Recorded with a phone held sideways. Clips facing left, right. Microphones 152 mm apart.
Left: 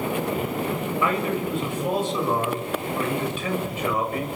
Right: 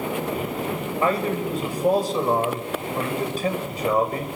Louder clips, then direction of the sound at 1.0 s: Right 3 dB; 40° right (ahead or behind).